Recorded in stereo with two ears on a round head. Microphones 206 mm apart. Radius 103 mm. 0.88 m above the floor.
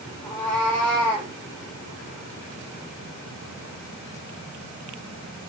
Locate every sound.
0.2 s a cat meowing: 5° left (ahead or behind), 5.5 m